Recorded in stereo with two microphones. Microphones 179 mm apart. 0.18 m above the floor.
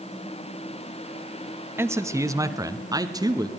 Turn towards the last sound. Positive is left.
turn(degrees=-20)  # may be behind; listen again after turning